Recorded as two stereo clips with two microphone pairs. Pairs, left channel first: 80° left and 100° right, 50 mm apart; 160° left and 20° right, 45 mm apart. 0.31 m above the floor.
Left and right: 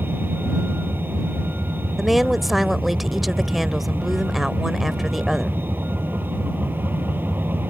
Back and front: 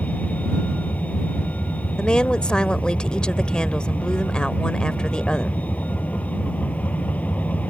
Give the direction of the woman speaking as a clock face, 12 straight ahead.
6 o'clock.